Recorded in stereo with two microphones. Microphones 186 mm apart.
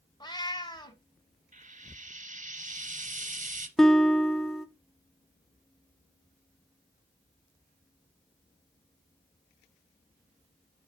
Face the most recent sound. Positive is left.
turn(degrees=0)  # may be behind; listen again after turning